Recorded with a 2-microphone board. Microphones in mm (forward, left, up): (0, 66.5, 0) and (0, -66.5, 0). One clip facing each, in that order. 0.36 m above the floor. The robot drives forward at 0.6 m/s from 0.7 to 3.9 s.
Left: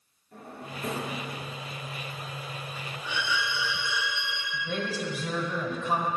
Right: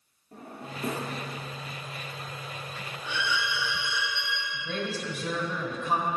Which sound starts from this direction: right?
A drawer, at 0.3 s.